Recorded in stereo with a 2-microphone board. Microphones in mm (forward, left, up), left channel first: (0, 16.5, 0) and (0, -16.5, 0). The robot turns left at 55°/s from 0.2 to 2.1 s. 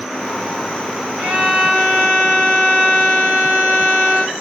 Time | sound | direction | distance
1.2 | a violin | 70° right | 2.5 m